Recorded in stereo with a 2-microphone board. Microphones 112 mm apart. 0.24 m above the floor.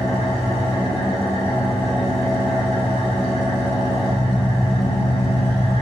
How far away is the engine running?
About 0.9 m.